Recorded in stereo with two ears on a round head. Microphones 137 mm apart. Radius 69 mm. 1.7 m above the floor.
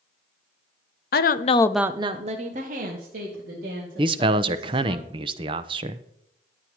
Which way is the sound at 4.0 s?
35° right (ahead or behind).